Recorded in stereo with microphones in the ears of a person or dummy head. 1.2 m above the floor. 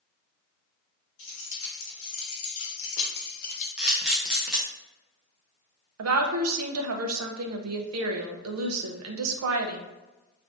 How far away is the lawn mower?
No lawn mower in this recording.